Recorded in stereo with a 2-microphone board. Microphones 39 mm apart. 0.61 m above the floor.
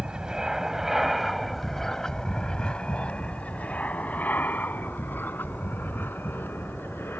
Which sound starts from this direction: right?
An aircraft, at 0.0 s.